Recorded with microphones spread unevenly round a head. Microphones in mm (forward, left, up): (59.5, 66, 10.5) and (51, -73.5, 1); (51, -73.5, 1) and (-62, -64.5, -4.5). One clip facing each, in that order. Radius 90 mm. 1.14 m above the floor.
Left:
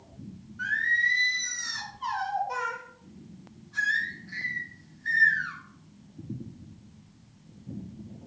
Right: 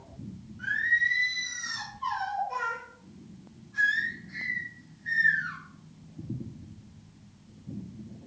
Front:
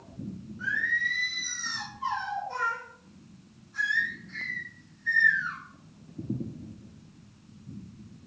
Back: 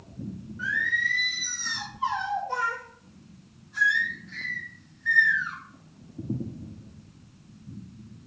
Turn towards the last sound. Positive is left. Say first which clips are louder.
# left 1 dB, back 2 dB
turn(degrees=120)